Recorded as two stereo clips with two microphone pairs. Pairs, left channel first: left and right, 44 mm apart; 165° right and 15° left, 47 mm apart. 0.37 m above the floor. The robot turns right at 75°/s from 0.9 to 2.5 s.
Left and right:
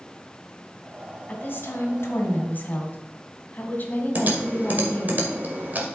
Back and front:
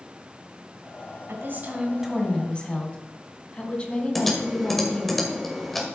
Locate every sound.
1.3 s a woman speaking: 40° left, 2.5 m; by 5.2 s 130° left, 2.5 m
4.2 s typing on a keyboard: 80° right, 1.8 m